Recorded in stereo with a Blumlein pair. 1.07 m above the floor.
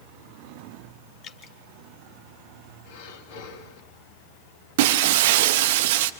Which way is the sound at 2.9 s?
50° left.